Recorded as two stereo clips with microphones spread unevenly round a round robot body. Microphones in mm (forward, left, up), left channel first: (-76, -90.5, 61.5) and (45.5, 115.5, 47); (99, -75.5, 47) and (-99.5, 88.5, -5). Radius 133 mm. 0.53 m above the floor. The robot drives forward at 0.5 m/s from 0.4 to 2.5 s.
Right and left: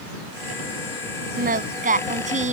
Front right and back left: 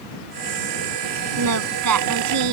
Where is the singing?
115° left; by 2.5 s 120° left.